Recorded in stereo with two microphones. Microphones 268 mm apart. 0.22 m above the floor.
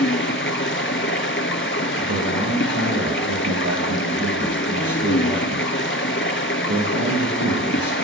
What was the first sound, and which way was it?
Running water, 50° left (ahead or behind).